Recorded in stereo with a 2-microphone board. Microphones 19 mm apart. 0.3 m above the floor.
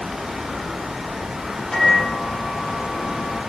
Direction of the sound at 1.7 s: 25° left (ahead or behind).